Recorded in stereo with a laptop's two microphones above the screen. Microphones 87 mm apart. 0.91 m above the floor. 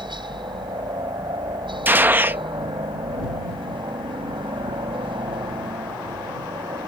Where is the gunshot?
20° right (ahead or behind).